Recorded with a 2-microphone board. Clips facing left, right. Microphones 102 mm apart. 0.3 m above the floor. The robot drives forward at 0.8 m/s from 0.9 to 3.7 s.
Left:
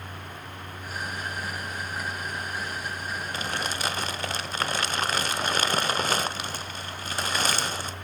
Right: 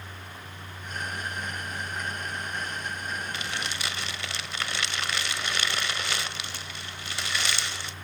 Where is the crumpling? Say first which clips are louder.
Left 3 dB; 40° left (ahead or behind), 0.5 m; by 7.9 s 45° left (ahead or behind), 0.5 m.